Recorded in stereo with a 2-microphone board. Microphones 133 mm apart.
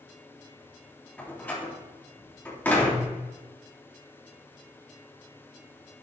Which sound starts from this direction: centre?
A door slam, at 1.2 s.